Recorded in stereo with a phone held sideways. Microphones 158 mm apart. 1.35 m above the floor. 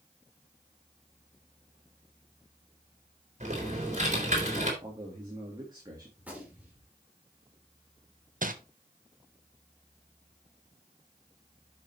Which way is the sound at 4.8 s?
25° right (ahead or behind).